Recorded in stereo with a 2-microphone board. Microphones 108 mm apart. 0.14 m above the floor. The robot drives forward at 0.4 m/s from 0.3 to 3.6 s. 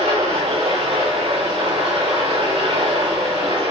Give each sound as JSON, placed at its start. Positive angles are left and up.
{"t": 0.0, "sound": "running water", "side_deg": -70, "distance_m": 3.5}